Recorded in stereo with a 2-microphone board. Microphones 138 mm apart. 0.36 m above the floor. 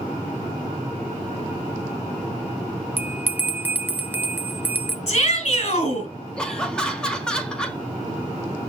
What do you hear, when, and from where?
3.0 s a bell: 15° right (ahead or behind), 0.6 m
5.1 s a shout: 50° left (ahead or behind), 4.5 m
6.4 s laughter: 5° left (ahead or behind), 1.3 m